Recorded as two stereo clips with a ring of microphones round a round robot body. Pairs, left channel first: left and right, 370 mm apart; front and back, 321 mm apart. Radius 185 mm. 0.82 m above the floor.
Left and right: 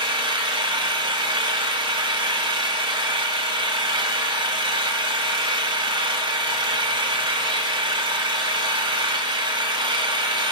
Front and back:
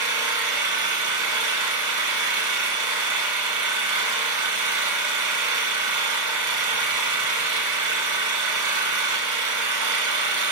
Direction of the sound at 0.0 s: 165° right.